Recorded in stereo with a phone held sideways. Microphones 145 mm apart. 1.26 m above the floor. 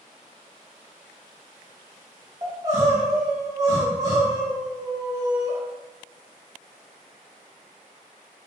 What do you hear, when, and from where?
2.4 s crying: 30° right (ahead or behind), 2.0 m